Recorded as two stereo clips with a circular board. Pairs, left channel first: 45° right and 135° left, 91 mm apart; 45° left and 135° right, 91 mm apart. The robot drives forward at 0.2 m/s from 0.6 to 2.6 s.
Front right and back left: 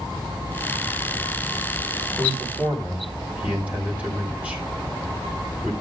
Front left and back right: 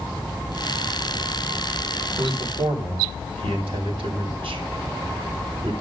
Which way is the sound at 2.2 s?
150° right.